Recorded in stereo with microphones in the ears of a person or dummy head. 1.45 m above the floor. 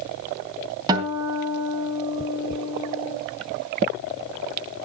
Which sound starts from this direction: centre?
A guitar, at 0.9 s.